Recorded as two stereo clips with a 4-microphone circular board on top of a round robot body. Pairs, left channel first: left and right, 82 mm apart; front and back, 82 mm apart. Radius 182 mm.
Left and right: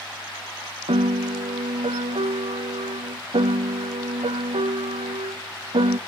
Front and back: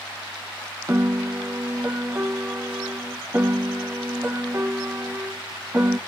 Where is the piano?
110° right, 0.9 m.